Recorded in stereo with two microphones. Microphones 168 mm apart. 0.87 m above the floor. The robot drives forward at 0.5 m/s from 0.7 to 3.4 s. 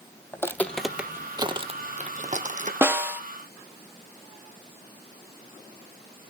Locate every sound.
0.3 s footsteps: 15° left (ahead or behind), 1.2 m; by 2.7 s 50° right (ahead or behind), 1.6 m
2.8 s a snare drum: 15° right (ahead or behind), 1.3 m